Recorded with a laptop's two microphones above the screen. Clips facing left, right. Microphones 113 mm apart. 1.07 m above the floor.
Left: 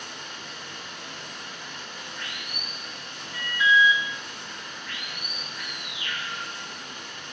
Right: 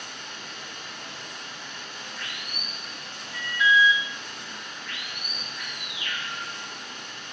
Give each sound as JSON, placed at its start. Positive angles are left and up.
{"t": 0.0, "sound": "running water", "side_deg": 10, "distance_m": 1.4}
{"t": 3.3, "sound": "an alarm", "side_deg": 0, "distance_m": 0.9}